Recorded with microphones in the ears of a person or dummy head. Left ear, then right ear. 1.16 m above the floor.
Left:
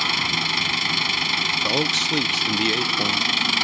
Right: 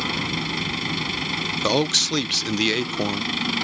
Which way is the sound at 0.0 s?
40° left (ahead or behind).